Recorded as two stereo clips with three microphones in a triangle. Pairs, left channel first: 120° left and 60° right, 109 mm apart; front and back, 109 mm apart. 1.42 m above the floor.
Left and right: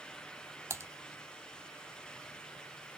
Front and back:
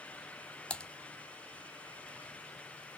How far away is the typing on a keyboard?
About 1.1 m.